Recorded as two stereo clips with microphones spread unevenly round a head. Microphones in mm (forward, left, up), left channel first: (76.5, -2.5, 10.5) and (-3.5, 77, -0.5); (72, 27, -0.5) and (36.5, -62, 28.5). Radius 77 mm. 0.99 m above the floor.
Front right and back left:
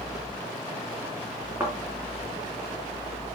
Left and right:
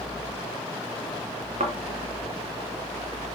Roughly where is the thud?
Behind right.